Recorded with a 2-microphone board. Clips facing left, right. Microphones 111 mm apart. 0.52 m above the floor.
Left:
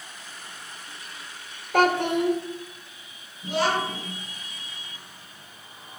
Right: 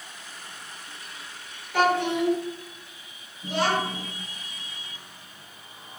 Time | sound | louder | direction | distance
1.7 | a child speaking | left 2 dB | 55° left (ahead or behind) | 1.1 m
3.4 | a child speaking | left 1 dB | 5° left (ahead or behind) | 3.5 m